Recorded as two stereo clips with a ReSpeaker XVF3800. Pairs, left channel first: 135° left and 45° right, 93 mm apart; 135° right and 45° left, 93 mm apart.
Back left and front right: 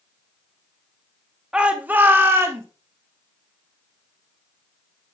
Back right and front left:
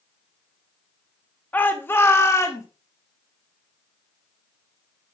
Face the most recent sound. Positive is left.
turn(degrees=-95)